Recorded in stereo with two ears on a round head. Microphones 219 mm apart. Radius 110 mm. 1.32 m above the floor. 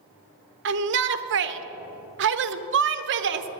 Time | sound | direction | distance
0.7 | a shout | 50° right (ahead or behind) | 0.8 m